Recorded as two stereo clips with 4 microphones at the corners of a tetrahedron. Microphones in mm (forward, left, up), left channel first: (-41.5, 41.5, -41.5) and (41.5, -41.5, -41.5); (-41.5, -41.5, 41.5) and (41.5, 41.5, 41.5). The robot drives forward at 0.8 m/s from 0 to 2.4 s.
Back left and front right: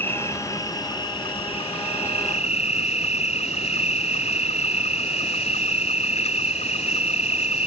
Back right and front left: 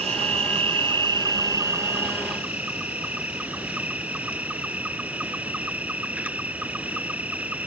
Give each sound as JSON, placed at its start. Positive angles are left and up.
{"t": 0.0, "sound": "an insect", "azimuth_deg": 65}